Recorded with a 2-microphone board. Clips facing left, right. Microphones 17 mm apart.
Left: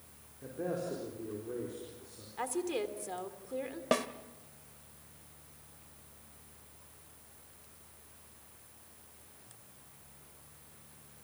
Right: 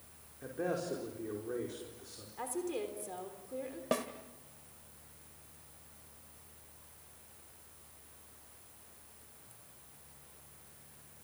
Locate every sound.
0.4 s a man speaking: 35° right (ahead or behind), 4.5 m
2.4 s a woman speaking: 35° left (ahead or behind), 3 m
3.9 s a snare drum: 30° left (ahead or behind), 1.3 m